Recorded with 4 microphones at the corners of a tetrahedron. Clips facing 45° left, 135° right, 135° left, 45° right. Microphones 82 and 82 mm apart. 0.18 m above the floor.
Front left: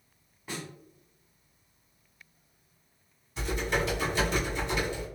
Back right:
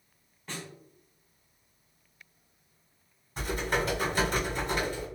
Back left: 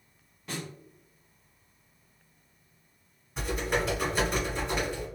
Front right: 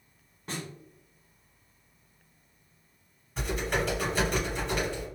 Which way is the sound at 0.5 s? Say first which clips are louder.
Front left 2 dB, even; 25° right.